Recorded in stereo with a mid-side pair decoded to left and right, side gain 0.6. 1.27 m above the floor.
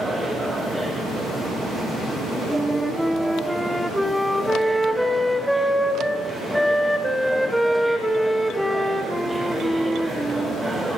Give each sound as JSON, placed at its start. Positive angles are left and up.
{"t": 0.0, "sound": "a machine running", "azimuth_deg": -15, "distance_m": 1.7}
{"t": 2.5, "sound": "a flute", "azimuth_deg": -5, "distance_m": 0.7}